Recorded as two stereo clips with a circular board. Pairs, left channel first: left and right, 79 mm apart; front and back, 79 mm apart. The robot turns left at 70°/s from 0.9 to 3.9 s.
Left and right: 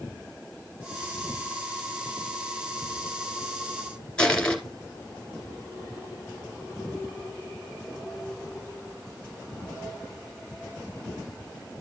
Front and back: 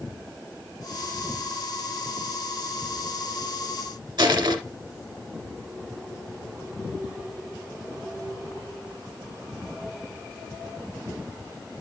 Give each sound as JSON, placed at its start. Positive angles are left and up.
{"t": 4.2, "sound": "crushing", "azimuth_deg": 165, "distance_m": 1.7}